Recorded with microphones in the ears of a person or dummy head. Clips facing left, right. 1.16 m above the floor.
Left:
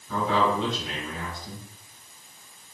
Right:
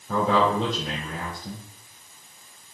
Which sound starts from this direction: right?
A man speaking, at 0.1 s.